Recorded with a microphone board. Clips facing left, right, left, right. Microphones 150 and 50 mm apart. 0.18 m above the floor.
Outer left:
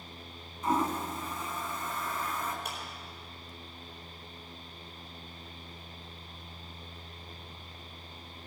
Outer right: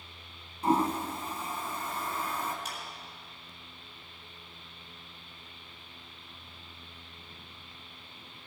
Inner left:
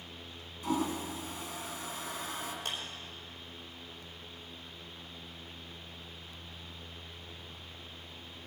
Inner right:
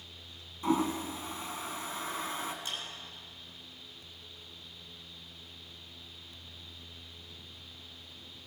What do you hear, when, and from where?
0.6 s a toilet flushing: 35° right (ahead or behind), 1.6 m
2.6 s a clap: 55° left (ahead or behind), 5 m